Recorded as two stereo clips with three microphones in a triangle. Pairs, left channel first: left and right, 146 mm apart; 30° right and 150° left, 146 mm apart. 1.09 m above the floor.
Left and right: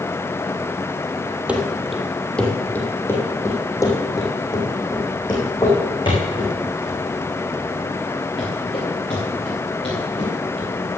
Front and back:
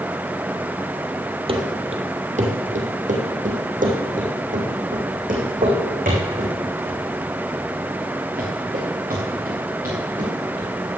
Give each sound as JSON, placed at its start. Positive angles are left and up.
{"t": 1.5, "sound": "running footsteps", "azimuth_deg": -170, "distance_m": 2.0}